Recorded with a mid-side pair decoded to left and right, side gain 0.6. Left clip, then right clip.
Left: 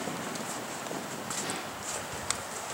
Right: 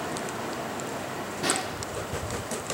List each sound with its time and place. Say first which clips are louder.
1.4 s a snare drum: right 7 dB; 65° right, 2.5 m